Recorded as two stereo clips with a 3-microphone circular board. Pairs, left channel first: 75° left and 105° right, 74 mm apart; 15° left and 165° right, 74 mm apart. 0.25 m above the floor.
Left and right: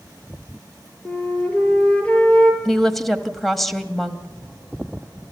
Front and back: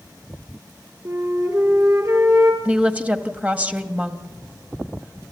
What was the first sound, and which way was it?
A flute, 145° left.